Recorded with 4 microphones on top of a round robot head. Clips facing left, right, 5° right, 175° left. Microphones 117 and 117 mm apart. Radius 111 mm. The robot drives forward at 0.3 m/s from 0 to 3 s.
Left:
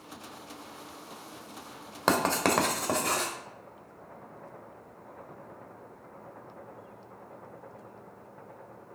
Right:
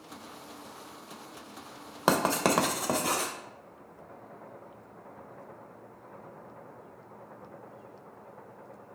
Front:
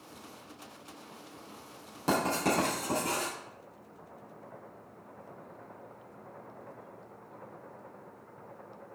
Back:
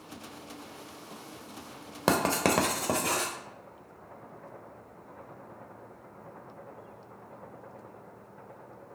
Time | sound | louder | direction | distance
2.1 | writing | even, back 3 dB | 170° right | 1.0 m